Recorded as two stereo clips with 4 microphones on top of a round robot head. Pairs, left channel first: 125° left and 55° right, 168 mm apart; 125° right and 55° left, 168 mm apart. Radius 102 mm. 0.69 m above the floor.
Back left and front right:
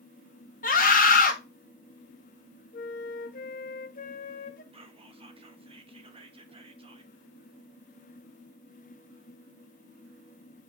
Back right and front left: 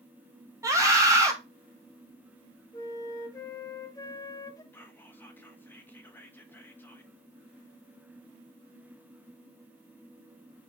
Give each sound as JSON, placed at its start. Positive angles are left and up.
{"t": 0.6, "sound": "a scream", "azimuth_deg": 120, "distance_m": 1.4}
{"t": 2.7, "sound": "a flute", "azimuth_deg": 165, "distance_m": 0.7}
{"t": 4.7, "sound": "whispering", "azimuth_deg": -60, "distance_m": 1.2}